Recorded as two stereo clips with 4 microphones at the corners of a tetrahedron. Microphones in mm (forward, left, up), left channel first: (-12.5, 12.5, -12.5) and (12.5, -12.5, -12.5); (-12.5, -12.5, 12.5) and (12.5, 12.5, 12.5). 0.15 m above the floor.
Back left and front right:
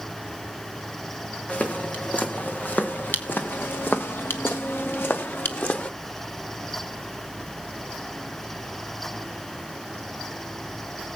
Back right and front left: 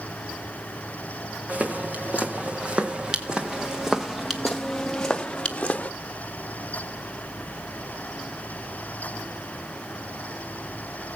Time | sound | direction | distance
1.5 | footsteps | 90° left | 3 m